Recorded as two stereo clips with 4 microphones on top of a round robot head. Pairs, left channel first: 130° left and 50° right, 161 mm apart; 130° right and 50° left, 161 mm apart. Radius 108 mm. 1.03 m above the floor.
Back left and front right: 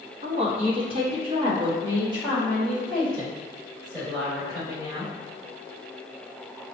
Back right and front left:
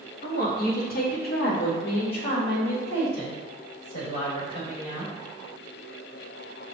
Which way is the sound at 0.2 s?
105° right.